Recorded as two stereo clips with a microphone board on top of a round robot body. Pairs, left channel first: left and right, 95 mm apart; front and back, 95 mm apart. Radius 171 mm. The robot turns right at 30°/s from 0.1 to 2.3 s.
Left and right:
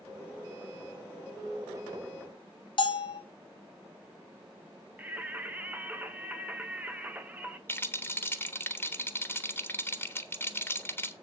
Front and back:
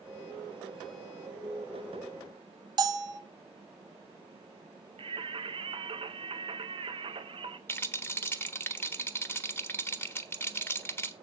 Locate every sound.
2.8 s a bell: 130° left, 1.2 m
5.0 s singing: 160° right, 1.3 m
7.7 s a rattle: 45° left, 1.5 m